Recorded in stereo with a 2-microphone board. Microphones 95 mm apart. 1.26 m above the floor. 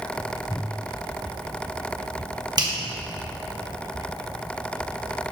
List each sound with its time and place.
2.6 s a finger snap: 45° right (ahead or behind), 1.6 m